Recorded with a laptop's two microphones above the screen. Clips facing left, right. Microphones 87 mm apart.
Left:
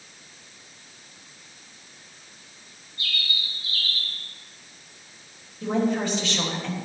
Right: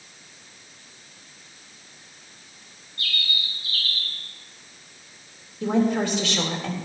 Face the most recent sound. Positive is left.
turn(degrees=-85)